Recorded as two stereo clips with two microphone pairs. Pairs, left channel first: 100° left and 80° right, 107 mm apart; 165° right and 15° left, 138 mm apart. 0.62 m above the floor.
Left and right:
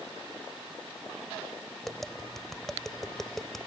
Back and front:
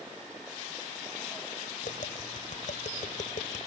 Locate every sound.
1.8 s tapping: 175° right